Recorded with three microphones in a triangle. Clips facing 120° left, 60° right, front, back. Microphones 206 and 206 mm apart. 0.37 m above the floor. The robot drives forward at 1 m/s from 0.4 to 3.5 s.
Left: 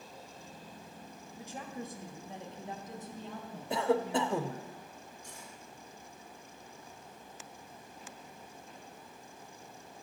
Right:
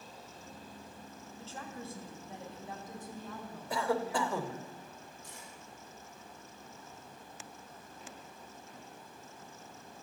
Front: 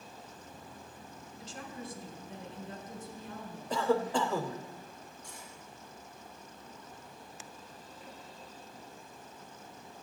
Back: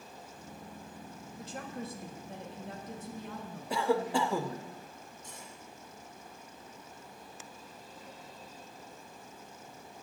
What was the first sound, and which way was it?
A woman speaking, 165° right.